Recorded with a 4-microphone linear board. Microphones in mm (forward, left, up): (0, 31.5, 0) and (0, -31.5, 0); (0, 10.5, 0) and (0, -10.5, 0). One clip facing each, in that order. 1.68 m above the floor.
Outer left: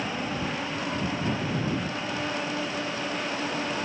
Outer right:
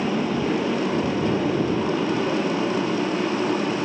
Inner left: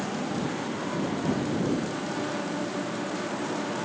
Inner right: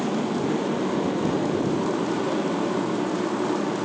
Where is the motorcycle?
70° right (ahead or behind); by 3.9 s 60° right (ahead or behind).